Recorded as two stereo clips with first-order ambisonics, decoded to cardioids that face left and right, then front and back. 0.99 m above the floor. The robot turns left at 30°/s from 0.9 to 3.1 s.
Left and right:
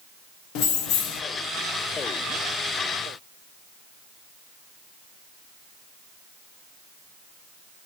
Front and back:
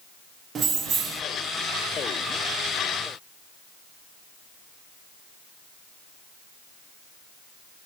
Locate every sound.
0.6 s keys jangling: 115° left, 0.5 m; by 1.2 s 105° left, 0.5 m